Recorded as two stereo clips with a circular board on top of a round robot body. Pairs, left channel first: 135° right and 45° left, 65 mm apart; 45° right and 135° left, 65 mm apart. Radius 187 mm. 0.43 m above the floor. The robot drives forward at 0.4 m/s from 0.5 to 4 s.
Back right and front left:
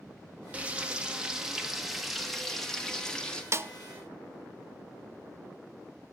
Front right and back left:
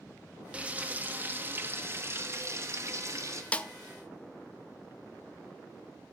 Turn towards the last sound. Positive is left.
turn(degrees=35)